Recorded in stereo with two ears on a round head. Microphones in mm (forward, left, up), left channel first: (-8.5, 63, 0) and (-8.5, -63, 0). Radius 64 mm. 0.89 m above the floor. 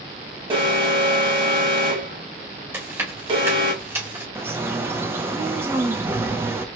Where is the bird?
15° right (ahead or behind), 0.7 m.